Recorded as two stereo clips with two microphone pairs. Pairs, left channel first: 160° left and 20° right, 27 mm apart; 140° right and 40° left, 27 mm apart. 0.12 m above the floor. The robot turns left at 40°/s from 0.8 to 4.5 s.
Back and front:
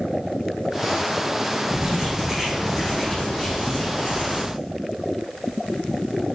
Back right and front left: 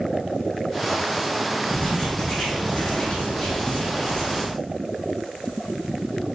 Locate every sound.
1.7 s writing: 80° right, 1.9 m; by 4.6 s 170° left, 1.9 m